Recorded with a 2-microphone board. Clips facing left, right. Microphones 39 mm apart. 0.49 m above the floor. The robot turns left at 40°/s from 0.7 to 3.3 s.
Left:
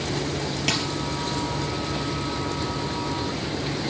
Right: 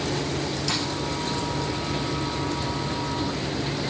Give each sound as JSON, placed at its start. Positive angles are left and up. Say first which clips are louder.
{"t": 0.7, "sound": "a dropped coin", "louder": "left 5 dB", "side_deg": 40, "distance_m": 3.0}